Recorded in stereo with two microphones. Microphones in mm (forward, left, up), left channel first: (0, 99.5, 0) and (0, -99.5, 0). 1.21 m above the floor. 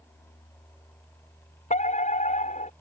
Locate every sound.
1.7 s a fire alarm: 40° left (ahead or behind)